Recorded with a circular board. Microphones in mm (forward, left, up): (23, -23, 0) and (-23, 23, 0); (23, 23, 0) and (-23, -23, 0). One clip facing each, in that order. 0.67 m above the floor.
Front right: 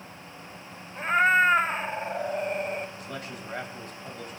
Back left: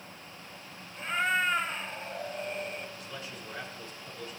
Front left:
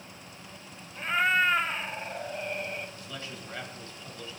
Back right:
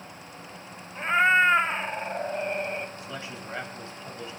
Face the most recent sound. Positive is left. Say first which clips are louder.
# front right 4 dB, back right 4 dB
turn(degrees=-70)